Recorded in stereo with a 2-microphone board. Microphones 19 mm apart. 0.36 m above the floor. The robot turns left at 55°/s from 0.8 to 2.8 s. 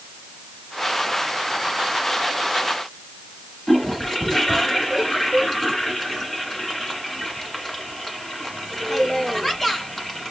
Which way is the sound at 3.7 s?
15° left (ahead or behind).